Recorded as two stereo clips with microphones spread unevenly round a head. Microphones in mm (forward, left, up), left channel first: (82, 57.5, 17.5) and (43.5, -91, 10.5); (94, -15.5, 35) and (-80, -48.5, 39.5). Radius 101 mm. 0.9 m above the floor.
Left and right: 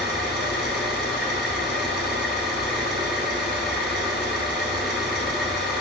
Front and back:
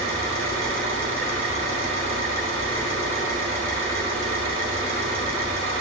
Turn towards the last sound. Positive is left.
turn(degrees=170)